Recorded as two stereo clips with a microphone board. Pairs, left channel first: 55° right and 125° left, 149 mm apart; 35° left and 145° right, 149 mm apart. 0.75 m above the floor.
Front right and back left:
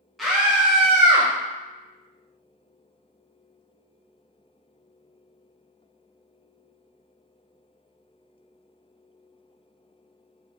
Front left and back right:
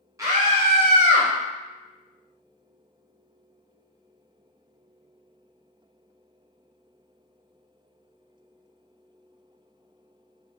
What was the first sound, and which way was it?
A scream, 145° right.